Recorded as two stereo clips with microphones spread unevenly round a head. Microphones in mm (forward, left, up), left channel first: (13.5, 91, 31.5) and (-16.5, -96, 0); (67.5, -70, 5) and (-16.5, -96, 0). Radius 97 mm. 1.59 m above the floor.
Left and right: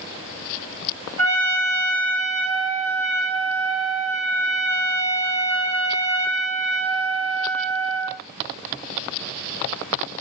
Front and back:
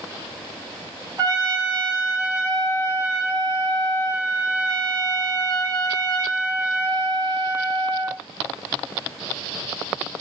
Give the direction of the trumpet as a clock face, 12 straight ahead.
4 o'clock.